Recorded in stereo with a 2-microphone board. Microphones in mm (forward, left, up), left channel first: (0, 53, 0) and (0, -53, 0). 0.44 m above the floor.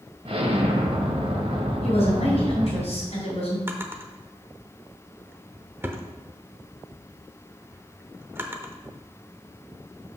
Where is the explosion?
60° right (ahead or behind), 1.4 m.